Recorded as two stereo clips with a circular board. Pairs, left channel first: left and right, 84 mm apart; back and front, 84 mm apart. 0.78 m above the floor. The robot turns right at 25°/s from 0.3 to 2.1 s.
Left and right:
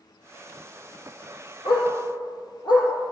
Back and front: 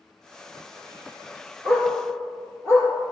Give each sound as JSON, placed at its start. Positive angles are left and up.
{"t": 1.6, "sound": "a dog barking", "azimuth_deg": 50, "distance_m": 5.0}